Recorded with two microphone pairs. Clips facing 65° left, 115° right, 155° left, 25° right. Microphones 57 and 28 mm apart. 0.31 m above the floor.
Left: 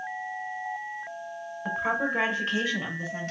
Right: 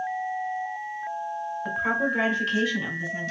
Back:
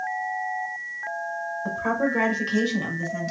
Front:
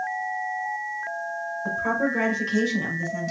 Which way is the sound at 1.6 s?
150° left.